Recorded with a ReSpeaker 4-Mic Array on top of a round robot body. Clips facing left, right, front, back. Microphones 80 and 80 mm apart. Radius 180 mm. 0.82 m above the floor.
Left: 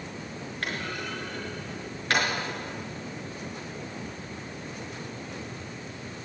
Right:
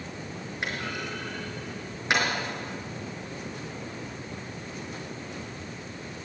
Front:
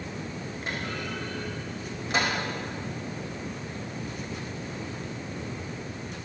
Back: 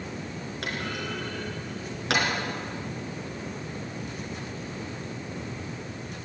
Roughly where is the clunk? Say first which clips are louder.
Even, back 1 dB; behind.